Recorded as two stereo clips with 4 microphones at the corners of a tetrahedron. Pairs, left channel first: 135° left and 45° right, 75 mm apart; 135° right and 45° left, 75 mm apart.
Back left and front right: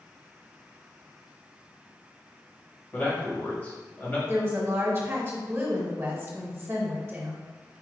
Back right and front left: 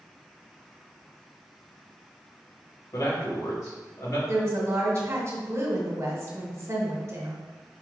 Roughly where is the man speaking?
Behind.